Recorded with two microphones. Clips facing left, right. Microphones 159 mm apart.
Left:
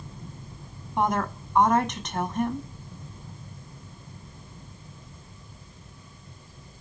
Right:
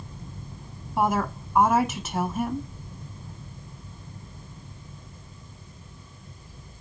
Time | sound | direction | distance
1.0 | a woman speaking | 5° right (ahead or behind) | 1.0 m